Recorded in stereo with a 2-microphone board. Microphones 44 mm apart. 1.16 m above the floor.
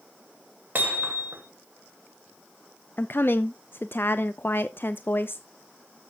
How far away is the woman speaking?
About 0.5 m.